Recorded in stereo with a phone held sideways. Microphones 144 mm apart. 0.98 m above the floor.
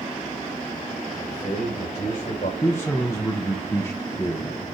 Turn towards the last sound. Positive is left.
turn(degrees=20)  # may be behind; listen again after turning